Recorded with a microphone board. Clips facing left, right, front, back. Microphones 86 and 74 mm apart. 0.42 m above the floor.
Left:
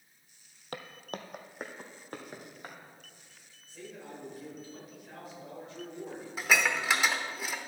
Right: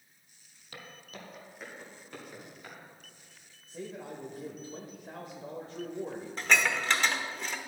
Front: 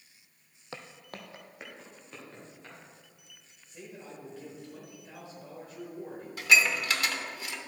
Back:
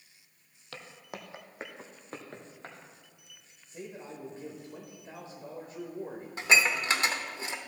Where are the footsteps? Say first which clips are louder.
Left 7 dB, even; 65° left, 0.8 m; by 2.8 s 140° left, 3 m.